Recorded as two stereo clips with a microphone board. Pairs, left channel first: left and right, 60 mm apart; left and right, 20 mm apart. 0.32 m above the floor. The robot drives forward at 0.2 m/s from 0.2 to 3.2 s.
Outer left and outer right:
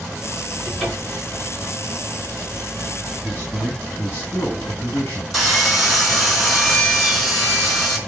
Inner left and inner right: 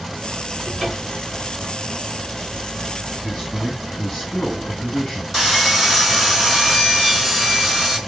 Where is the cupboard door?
10° left (ahead or behind), 3.5 m.